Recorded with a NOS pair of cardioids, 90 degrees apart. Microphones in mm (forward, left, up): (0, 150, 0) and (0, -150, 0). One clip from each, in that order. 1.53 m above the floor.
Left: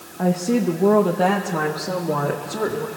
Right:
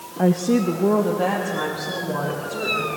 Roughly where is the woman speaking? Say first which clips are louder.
Right 1 dB; ahead.